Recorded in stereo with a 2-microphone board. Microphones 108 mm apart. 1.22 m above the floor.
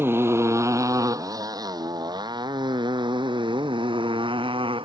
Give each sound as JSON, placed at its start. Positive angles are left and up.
{"t": 0.0, "sound": "a motorcycle", "side_deg": -20}